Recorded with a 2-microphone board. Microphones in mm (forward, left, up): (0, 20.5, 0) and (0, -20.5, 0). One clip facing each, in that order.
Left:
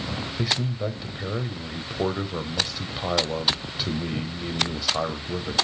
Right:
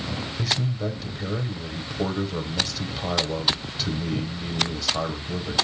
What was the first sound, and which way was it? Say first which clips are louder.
A man speaking: left 1 dB; 10° left (ahead or behind).